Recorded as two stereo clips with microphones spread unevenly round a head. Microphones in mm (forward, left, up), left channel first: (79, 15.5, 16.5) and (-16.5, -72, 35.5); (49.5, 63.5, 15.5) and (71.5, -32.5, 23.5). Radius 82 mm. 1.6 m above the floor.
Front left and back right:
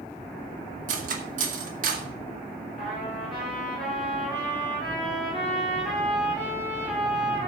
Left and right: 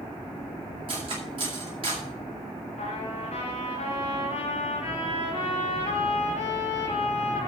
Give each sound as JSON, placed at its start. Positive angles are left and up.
{"t": 0.9, "sound": "cutlery clinking", "azimuth_deg": -130, "distance_m": 2.0}
{"t": 2.8, "sound": "a trumpet", "azimuth_deg": 135, "distance_m": 6.5}